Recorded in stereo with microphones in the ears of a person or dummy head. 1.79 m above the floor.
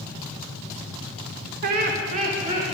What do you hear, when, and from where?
1.6 s laughter: 60° right (ahead or behind), 1.1 m; by 2.6 s 40° right (ahead or behind), 2 m